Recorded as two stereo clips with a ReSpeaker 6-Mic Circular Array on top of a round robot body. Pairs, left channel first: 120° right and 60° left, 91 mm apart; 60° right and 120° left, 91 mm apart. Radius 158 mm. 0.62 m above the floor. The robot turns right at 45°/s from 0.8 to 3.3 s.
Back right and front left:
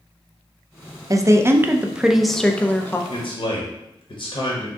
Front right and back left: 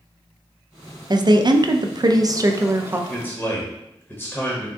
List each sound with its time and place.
1.1 s a woman speaking: 100° left, 0.7 m; by 3.0 s 175° right, 0.7 m
3.1 s a man speaking: 140° right, 1.3 m; by 4.7 s 130° right, 1.3 m